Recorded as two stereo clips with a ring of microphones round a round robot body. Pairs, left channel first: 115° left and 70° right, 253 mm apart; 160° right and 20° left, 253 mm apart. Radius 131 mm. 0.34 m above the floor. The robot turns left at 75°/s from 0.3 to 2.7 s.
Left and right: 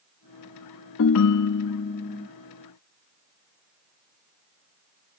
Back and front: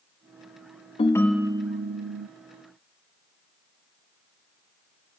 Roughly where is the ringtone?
Behind left.